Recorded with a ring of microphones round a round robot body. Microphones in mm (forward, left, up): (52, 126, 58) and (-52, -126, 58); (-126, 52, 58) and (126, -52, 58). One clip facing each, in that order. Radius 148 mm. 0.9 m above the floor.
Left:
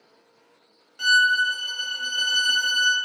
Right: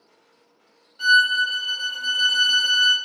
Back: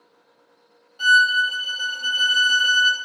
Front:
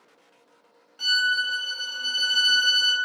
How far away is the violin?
About 1.3 m.